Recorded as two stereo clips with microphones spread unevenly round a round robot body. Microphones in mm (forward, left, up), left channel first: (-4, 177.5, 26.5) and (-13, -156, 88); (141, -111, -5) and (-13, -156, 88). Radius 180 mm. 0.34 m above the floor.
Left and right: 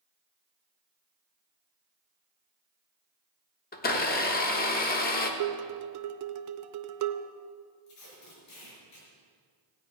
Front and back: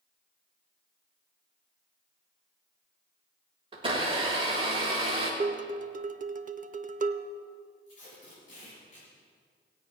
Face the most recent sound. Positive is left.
turn(degrees=55)